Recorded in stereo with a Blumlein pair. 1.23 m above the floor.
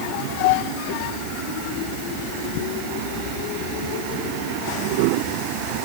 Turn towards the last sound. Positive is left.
No sound to turn to.